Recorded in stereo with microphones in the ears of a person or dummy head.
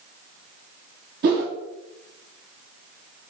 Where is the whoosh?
45° right (ahead or behind), 1.1 m.